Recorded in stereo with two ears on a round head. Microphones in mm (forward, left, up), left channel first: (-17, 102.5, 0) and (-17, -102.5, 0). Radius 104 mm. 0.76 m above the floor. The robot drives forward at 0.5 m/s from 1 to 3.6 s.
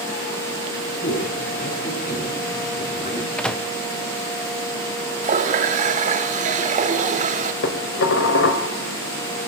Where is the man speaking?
45° left (ahead or behind), 8.5 m; by 3.3 s 40° left (ahead or behind), 9.5 m.